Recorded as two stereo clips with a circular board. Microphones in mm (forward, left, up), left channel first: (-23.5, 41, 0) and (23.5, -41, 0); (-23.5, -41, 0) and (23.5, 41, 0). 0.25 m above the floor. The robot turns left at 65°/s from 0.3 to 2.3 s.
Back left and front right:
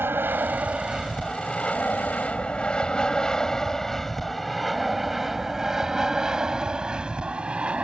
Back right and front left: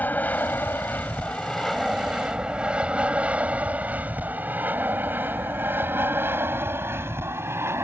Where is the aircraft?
80° right; by 7.8 s 10° left.